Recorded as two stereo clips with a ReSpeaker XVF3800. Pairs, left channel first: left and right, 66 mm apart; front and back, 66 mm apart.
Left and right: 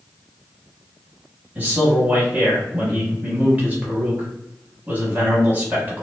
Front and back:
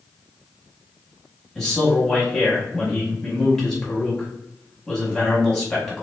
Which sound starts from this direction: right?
A man speaking, at 1.6 s.